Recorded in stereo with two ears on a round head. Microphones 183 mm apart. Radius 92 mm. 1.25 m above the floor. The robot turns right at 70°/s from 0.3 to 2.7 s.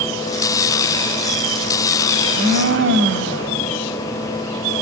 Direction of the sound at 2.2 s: 145° right.